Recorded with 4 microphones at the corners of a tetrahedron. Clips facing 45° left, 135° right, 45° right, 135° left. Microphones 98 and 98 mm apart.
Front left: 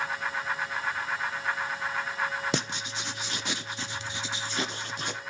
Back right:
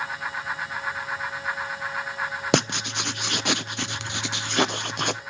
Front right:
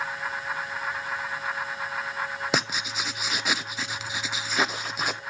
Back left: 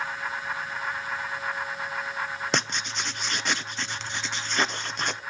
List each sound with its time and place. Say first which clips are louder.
2.5 s writing: back right 8 dB, front right 1 dB; 130° right, 0.5 m